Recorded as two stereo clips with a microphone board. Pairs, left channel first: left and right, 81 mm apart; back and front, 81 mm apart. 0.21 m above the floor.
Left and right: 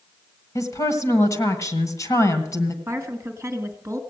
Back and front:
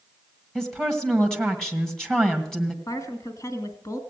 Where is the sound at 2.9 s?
140° right, 2 m.